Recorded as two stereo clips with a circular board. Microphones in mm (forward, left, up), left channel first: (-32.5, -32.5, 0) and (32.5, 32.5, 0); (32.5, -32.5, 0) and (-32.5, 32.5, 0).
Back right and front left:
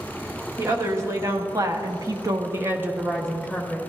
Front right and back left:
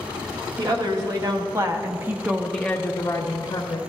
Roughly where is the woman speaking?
Left.